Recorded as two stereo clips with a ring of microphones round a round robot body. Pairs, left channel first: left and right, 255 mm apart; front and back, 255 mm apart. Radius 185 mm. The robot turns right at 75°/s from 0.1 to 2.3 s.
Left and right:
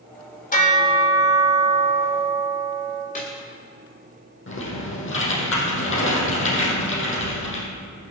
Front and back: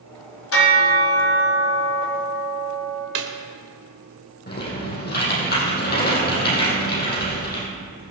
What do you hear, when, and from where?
0.5 s a bell: 30° left, 3.5 m; by 3.0 s 165° left, 3.5 m
3.1 s a snare drum: 160° left, 2 m
4.5 s typing on a keyboard: 50° left, 5.5 m